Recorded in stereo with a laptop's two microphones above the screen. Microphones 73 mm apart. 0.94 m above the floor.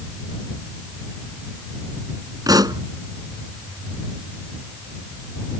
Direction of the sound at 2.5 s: 60° right (ahead or behind).